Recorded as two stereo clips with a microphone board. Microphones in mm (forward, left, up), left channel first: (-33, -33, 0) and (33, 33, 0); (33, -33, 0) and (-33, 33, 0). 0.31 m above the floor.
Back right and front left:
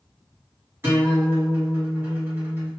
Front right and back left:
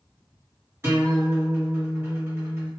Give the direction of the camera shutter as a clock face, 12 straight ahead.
No camera shutter in this recording.